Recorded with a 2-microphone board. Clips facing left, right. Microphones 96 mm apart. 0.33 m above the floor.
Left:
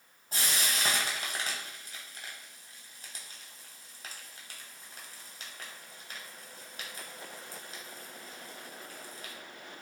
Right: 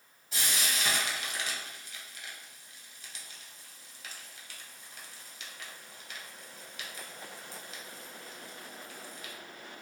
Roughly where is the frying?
Left.